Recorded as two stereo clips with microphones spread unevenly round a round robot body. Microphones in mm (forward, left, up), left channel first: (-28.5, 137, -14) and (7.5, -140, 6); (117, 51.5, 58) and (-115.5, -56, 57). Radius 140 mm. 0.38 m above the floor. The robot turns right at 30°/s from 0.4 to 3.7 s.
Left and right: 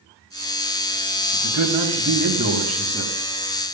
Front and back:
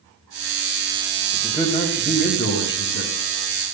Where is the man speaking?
60° right, 3 m; by 3.1 s 5° right, 3 m.